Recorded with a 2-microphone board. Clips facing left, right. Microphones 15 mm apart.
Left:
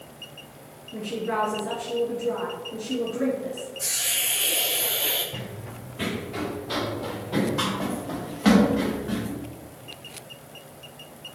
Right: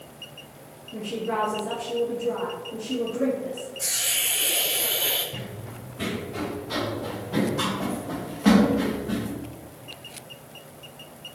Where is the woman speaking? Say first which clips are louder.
Even; 50° left (ahead or behind), 1.9 m.